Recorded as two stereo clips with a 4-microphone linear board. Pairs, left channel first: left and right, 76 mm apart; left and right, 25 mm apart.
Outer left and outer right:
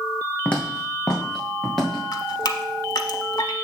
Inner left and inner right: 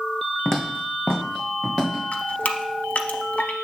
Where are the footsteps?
15° left (ahead or behind), 1.8 m; by 2.0 s 5° left (ahead or behind), 4 m.